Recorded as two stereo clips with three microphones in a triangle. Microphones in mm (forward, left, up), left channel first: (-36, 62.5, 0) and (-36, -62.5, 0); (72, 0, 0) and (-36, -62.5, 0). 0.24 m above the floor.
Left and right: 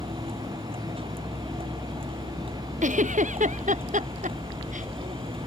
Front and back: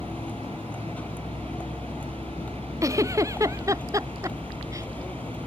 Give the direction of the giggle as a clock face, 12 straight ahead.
3 o'clock.